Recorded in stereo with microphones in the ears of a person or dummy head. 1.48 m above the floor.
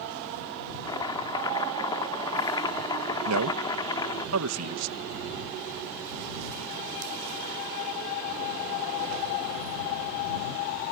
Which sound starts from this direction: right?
A man speaking, at 3.2 s.